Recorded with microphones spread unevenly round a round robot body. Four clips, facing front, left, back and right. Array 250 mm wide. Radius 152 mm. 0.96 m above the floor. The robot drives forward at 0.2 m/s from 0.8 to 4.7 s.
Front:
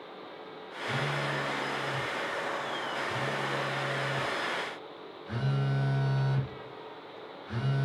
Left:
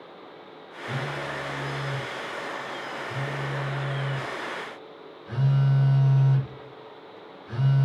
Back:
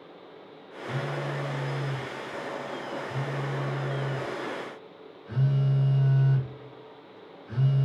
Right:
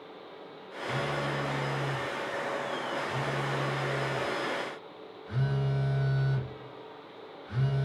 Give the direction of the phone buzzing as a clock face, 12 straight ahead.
9 o'clock.